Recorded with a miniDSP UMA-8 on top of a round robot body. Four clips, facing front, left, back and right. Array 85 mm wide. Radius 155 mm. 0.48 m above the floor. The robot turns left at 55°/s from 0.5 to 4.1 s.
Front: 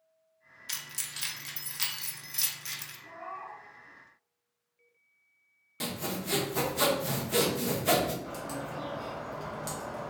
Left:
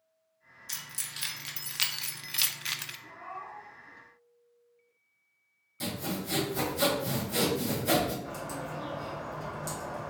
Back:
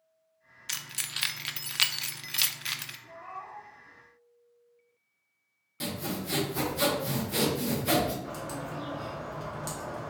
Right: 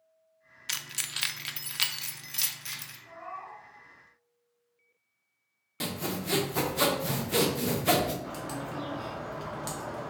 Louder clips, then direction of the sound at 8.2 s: Right 1 dB, back 1 dB; 95° right.